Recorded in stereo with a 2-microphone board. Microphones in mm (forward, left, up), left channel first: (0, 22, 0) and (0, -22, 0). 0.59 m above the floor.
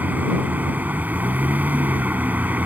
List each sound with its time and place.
0.0 s a vehicle: 40° right (ahead or behind)